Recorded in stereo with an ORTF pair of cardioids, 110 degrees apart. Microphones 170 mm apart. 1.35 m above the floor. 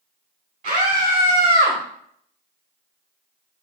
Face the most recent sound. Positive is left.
turn(degrees=-50)